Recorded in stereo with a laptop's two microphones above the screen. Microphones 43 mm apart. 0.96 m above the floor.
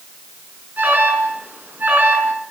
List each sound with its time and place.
0.8 s an alarm: 45° right (ahead or behind), 6.5 m